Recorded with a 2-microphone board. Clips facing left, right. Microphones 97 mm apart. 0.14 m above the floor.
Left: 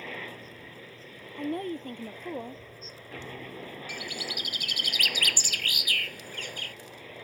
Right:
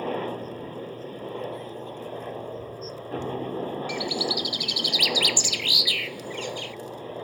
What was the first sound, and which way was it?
A helicopter, 40° right (ahead or behind).